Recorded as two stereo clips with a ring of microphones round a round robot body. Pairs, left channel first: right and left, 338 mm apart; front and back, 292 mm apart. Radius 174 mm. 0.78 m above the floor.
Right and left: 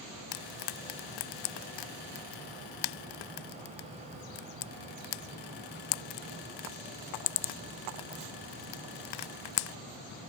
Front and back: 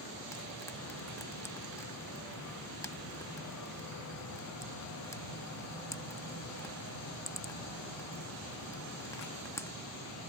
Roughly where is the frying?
Right.